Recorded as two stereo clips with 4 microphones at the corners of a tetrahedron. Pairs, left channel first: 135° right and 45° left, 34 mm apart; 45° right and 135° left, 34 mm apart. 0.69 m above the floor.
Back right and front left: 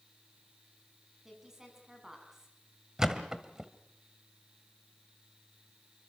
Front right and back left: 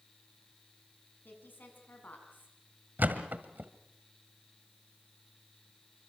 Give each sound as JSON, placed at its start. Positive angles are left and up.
{"t": 1.2, "sound": "a woman speaking", "azimuth_deg": -30, "distance_m": 7.5}
{"t": 3.0, "sound": "a thud", "azimuth_deg": 115, "distance_m": 1.7}